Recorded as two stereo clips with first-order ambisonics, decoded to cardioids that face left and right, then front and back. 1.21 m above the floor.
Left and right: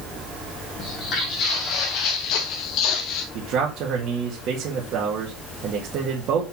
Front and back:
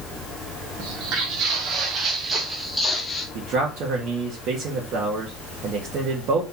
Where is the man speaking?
135° right, 1.9 m.